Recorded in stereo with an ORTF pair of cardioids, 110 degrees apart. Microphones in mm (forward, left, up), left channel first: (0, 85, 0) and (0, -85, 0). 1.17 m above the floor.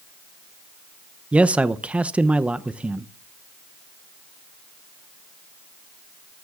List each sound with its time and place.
1.3 s a man speaking: 10° right, 0.6 m